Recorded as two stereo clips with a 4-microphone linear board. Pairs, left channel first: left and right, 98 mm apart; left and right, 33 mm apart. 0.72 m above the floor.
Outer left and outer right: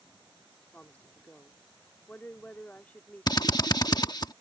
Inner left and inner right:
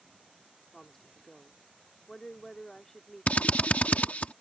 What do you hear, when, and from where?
0.7 s a woman speaking: 15° left (ahead or behind)
3.3 s a drill: 45° left (ahead or behind)